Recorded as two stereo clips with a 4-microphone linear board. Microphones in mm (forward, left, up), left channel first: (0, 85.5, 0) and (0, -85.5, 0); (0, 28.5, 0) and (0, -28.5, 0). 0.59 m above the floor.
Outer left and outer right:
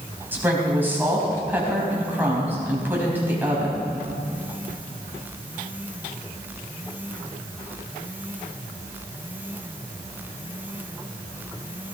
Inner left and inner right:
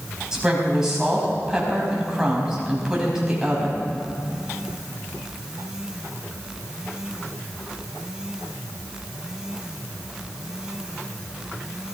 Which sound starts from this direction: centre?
A woman speaking, at 0.3 s.